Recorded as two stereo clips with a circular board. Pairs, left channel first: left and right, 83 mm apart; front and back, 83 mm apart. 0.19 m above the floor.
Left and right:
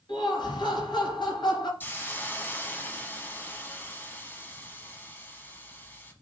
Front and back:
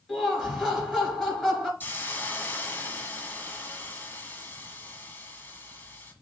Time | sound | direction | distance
0.1 | laughter | 80° left | 3 m
1.8 | a hiss | 45° left | 1.0 m